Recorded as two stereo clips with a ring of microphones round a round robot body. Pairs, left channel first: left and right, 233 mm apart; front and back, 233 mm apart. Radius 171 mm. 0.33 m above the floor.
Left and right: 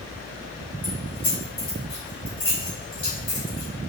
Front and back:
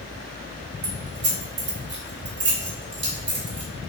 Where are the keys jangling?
160° left, 1.3 m.